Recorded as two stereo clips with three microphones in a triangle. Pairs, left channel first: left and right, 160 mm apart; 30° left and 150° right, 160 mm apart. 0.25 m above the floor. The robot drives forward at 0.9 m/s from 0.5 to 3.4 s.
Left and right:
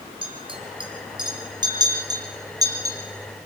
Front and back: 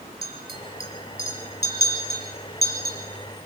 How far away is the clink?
About 3.5 m.